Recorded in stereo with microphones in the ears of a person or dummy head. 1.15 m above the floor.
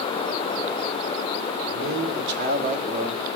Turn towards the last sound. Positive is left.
turn(degrees=-25)  # may be behind; listen again after turning